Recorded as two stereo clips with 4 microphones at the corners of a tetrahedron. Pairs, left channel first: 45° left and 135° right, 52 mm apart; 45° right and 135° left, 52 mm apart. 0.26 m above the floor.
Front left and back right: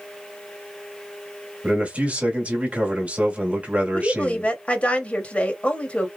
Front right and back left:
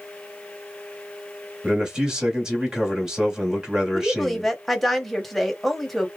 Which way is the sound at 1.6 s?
165° right.